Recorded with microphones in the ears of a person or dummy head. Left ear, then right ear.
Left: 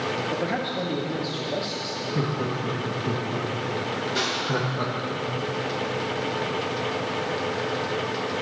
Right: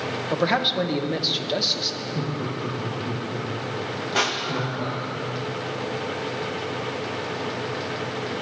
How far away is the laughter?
About 1.7 m.